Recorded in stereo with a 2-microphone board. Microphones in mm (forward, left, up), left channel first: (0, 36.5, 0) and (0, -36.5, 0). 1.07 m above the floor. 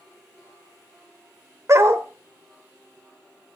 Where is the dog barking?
40° right (ahead or behind), 1.2 m.